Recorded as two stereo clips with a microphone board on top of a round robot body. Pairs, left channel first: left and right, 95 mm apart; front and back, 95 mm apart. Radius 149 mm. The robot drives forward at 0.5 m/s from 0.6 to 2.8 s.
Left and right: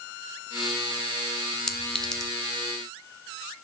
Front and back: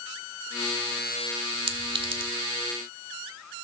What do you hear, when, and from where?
1.7 s a clink: 175° left, 1.4 m